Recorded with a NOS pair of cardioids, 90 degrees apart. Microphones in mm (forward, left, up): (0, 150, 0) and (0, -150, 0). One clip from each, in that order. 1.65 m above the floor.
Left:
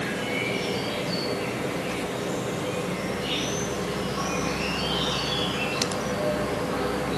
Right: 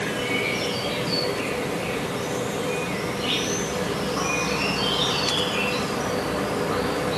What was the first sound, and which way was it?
An insect, 50° right.